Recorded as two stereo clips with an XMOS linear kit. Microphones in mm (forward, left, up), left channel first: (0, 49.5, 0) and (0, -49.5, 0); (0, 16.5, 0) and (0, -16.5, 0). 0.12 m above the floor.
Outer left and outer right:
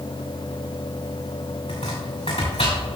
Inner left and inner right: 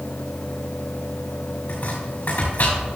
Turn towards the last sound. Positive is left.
turn(degrees=75)  # may be behind; listen again after turning